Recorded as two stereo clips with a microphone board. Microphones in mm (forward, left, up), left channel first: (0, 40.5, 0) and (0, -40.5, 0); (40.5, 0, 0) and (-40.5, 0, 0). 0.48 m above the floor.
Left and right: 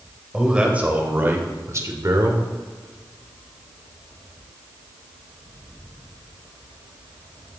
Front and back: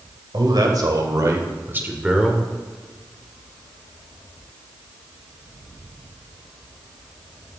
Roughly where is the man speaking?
Behind.